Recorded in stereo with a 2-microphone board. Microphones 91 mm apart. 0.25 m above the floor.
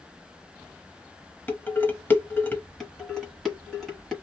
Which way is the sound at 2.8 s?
5° left (ahead or behind).